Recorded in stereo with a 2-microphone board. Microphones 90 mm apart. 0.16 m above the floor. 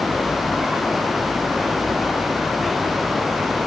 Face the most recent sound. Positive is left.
No sound to turn to.